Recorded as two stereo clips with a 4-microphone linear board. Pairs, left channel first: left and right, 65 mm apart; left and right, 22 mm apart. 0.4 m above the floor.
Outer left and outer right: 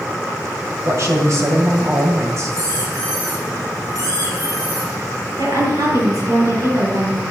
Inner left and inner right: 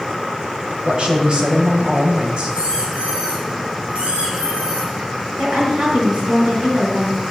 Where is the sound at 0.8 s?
50° right (ahead or behind), 2.5 m.